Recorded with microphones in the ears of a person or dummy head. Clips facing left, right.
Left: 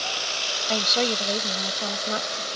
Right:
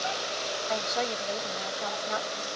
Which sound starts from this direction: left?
A woman speaking, at 0.7 s.